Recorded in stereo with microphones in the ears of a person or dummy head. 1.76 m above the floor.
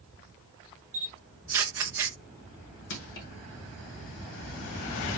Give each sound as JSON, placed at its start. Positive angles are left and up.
{"t": 0.9, "sound": "a camera shutter", "side_deg": -10, "distance_m": 0.6}
{"t": 2.9, "sound": "crushing", "side_deg": 65, "distance_m": 1.4}